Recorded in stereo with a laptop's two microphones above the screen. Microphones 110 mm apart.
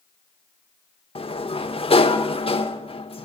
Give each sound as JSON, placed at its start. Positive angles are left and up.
{"t": 1.1, "sound": "a sliding door", "side_deg": 60, "distance_m": 1.0}